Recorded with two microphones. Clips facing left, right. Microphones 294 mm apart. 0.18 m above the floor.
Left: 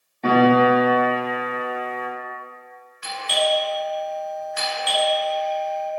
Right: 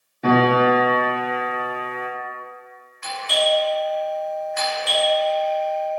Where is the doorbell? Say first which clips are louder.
Right 1 dB; 20° left (ahead or behind), 1.5 m.